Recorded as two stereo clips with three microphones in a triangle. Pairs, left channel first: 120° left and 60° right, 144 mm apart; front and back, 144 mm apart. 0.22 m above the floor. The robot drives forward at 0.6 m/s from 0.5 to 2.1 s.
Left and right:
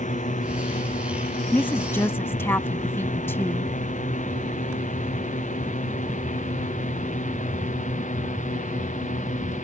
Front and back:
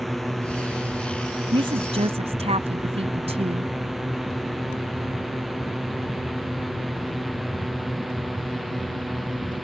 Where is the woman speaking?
170° right; by 3.7 s 175° right.